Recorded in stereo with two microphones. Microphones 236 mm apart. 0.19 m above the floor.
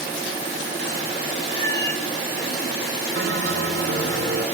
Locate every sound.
1.5 s a cat meowing: 45° right (ahead or behind), 4.5 m
3.1 s a bell: 55° right (ahead or behind), 1.1 m